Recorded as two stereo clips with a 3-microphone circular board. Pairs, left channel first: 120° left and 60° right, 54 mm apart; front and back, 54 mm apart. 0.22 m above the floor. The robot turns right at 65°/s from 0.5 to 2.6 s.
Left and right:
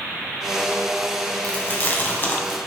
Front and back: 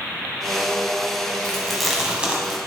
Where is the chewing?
70° left, 1.7 m; by 2.6 s 145° left, 1.7 m.